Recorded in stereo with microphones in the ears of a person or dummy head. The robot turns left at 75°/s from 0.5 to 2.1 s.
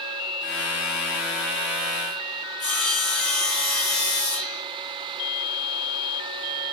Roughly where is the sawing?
Centre.